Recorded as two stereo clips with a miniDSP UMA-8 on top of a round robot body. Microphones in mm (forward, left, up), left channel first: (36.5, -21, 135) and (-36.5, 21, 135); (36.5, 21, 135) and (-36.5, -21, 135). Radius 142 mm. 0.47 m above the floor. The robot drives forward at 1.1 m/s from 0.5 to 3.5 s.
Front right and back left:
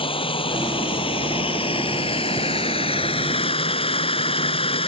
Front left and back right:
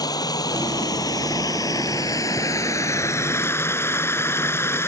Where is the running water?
15° right; by 4.9 s 35° right.